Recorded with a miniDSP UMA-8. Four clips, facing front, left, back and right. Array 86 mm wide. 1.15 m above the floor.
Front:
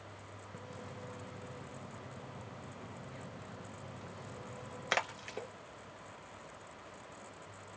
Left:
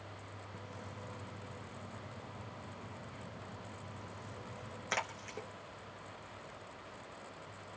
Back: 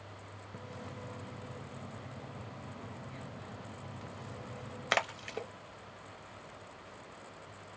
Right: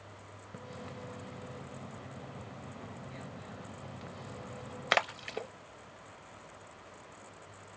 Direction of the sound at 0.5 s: 110° right.